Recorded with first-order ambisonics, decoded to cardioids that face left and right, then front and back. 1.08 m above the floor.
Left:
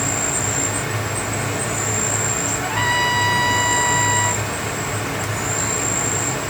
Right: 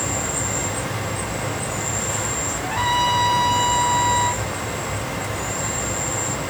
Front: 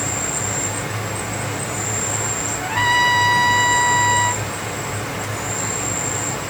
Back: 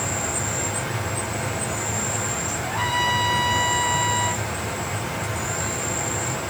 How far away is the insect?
About 1.5 m.